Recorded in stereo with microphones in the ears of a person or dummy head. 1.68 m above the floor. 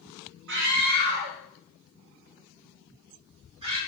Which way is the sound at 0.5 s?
65° right (ahead or behind).